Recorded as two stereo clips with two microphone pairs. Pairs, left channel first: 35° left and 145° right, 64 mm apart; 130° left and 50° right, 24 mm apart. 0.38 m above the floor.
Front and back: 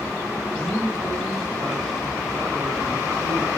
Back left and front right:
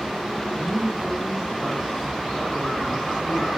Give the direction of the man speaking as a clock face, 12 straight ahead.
5 o'clock.